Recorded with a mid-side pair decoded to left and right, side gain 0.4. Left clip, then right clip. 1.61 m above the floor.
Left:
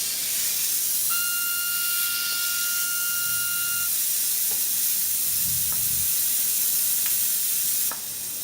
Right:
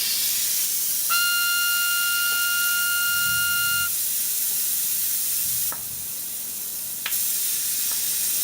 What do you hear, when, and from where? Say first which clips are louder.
1.1 s a trumpet: right 10 dB; 60° right